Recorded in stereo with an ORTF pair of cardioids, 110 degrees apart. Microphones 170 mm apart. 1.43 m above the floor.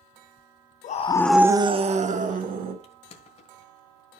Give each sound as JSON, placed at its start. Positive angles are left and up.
{"t": 0.8, "sound": "a scream", "azimuth_deg": 50, "distance_m": 0.7}
{"t": 2.8, "sound": "crushing", "azimuth_deg": 40, "distance_m": 1.5}